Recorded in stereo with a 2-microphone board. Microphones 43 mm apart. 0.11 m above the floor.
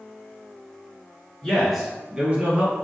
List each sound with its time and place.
1.4 s a man speaking: 10° left (ahead or behind), 1.3 m; by 2.7 s 40° right (ahead or behind), 1.8 m